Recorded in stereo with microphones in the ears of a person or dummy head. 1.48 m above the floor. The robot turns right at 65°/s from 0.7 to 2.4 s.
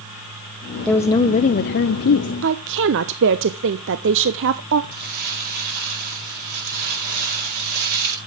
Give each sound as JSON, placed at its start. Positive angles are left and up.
{"t": 0.8, "sound": "a woman speaking", "azimuth_deg": 10, "distance_m": 0.7}
{"t": 2.4, "sound": "a woman speaking", "side_deg": -65, "distance_m": 0.6}
{"t": 4.9, "sound": "crumpling", "side_deg": -60, "distance_m": 7.5}